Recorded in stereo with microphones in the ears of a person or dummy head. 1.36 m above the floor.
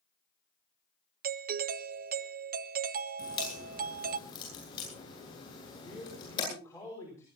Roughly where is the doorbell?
Right.